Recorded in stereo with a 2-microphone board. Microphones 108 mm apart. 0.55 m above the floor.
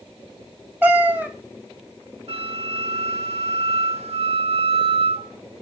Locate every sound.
0.8 s a cat meowing: 15° right (ahead or behind), 1.1 m
2.3 s a flute: 70° right (ahead or behind), 0.9 m